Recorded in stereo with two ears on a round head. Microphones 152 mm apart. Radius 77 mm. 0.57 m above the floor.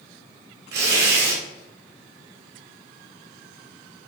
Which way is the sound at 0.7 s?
65° right (ahead or behind).